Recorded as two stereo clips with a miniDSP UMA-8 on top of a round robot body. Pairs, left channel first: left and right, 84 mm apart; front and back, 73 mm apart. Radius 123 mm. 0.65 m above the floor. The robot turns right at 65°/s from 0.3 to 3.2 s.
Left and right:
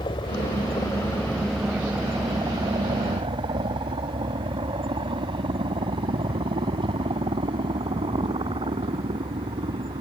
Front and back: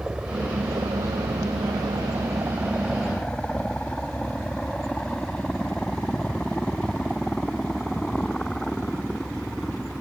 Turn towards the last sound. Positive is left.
turn(degrees=-80)